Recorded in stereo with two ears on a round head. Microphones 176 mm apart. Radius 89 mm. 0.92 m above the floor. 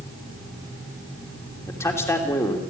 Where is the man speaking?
15° left (ahead or behind), 3 m.